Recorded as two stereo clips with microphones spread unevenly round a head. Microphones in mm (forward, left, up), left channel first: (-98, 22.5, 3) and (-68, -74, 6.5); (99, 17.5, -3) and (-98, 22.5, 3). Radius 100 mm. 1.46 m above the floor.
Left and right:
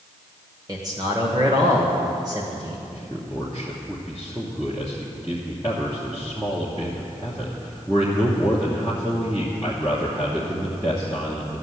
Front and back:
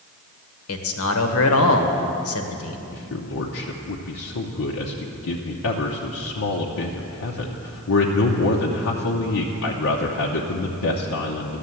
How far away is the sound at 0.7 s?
About 1.3 m.